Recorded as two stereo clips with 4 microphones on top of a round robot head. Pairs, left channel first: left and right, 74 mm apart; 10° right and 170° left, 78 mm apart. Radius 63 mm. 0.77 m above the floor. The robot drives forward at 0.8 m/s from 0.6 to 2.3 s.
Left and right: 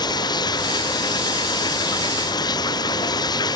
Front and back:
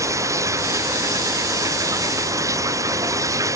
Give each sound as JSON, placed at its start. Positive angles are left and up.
{"t": 0.0, "sound": "running water", "azimuth_deg": 120}